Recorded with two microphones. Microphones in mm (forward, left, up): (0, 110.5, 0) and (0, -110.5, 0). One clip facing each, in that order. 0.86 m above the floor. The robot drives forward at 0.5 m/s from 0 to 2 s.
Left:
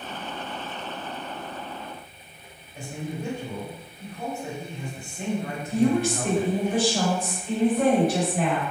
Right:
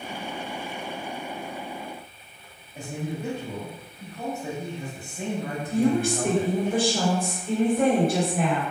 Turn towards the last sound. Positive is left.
turn(degrees=-55)  # may be behind; listen again after turning